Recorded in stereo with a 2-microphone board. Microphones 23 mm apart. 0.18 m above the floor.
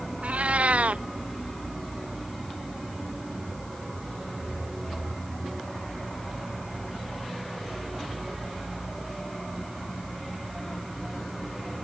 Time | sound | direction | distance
0.2 | a cat meowing | 70° right (ahead or behind) | ?